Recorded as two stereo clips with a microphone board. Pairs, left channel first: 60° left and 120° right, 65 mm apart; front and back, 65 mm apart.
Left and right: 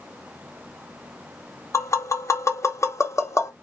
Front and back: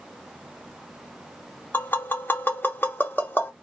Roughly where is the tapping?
Ahead left.